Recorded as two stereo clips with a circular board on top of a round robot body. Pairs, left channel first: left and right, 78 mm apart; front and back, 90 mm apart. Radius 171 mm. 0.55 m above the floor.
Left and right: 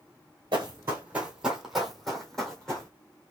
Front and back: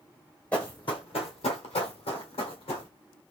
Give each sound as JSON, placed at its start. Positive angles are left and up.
{"t": 0.5, "sound": "running footsteps", "azimuth_deg": -75, "distance_m": 0.6}